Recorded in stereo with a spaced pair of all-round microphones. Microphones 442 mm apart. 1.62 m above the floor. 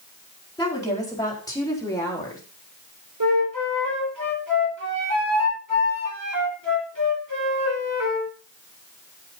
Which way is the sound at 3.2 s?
45° right (ahead or behind).